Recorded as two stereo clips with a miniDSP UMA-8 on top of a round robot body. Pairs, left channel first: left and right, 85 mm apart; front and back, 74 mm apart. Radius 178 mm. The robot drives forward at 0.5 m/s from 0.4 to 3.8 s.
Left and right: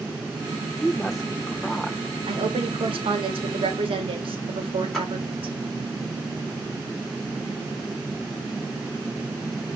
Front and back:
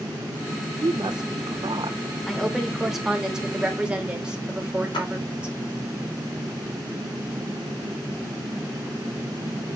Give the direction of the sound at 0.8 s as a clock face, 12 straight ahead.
6 o'clock.